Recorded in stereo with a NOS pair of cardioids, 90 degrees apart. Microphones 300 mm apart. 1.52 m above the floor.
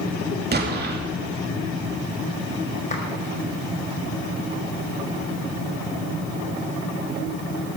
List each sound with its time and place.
0.5 s an explosion: 35° right, 2.5 m
2.9 s a clap: 25° left, 5.5 m